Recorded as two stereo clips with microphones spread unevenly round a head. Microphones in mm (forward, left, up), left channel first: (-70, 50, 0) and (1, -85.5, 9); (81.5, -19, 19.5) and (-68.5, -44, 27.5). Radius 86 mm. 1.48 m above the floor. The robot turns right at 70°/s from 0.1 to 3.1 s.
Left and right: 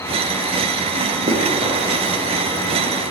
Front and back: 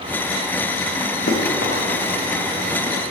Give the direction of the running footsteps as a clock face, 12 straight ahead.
12 o'clock.